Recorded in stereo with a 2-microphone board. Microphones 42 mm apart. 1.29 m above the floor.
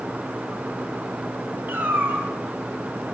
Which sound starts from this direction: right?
A cat meowing, at 1.7 s.